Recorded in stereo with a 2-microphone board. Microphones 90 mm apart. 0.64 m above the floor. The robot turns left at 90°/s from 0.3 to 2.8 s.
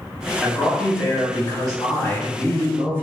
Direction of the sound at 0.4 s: 175° right.